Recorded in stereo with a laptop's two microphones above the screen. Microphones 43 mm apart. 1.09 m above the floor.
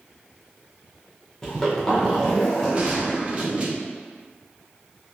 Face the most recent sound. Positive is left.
turn(degrees=-30)  # may be behind; listen again after turning